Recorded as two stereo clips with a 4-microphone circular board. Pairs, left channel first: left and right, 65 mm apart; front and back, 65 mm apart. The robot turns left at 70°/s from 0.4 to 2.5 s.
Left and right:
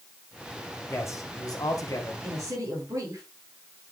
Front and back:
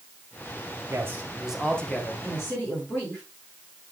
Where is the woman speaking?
40° right, 7 m; by 3.2 s 60° right, 7 m.